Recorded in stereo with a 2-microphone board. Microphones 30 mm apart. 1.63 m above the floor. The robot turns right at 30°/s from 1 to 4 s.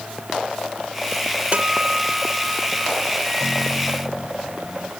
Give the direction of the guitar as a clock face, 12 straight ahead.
2 o'clock.